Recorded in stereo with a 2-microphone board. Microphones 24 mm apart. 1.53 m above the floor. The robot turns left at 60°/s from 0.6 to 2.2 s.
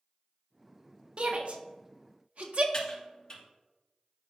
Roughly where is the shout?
Right.